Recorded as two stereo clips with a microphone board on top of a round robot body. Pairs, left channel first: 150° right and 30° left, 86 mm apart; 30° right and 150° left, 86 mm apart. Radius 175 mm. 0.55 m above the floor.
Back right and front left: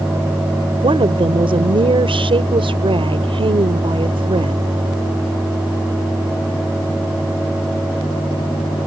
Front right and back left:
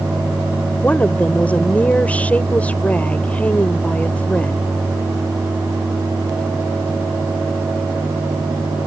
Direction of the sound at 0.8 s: 45° left.